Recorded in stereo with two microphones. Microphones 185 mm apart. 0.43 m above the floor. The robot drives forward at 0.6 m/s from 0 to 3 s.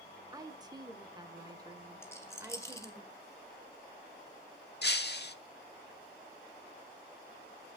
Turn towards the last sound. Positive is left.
turn(degrees=65)  # may be behind; listen again after turning